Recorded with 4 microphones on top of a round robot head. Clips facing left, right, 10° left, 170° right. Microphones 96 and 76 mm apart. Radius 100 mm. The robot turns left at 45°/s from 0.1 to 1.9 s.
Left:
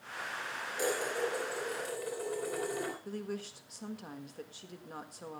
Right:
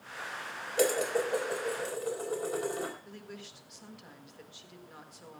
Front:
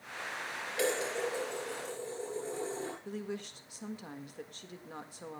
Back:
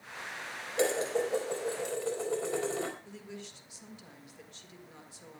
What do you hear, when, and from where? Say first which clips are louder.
0.8 s dishes clattering: right 6 dB, back 4 dB; 105° right, 4 m; by 3.0 s 155° right, 4 m
3.0 s a woman speaking: left 7 dB, front 6 dB; 45° left, 1.7 m